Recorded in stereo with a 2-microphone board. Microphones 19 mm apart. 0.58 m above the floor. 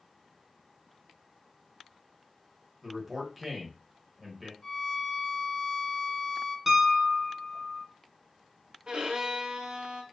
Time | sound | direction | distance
2.8 | a man speaking | 10° right (ahead or behind) | 1.0 m
4.6 | a violin | 25° left (ahead or behind) | 0.8 m
6.7 | a piano | 25° right (ahead or behind) | 0.9 m
8.9 | a violin | 60° right (ahead or behind) | 0.6 m